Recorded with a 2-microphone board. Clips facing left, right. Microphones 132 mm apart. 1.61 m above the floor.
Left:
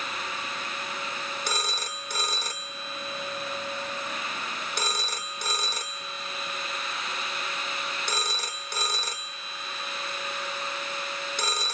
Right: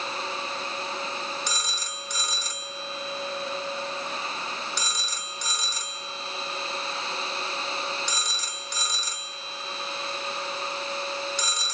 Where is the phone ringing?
50° left (ahead or behind), 1.3 m.